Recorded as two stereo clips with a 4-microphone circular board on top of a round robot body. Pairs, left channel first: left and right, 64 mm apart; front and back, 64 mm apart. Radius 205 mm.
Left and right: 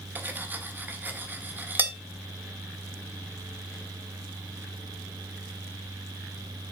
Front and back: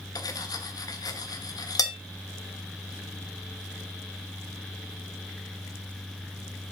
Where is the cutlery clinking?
25° right, 1.4 m.